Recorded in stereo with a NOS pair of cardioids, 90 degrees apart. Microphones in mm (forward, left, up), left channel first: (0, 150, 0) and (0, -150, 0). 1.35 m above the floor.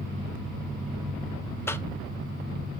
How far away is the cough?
About 0.9 m.